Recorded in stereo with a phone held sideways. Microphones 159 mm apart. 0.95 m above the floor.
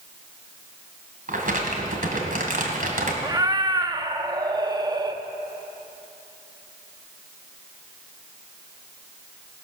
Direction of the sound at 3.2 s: 25° right (ahead or behind).